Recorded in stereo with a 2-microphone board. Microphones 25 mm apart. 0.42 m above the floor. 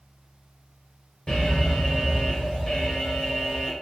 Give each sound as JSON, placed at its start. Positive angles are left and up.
{"t": 1.3, "sound": "an alarm", "side_deg": 25, "distance_m": 1.1}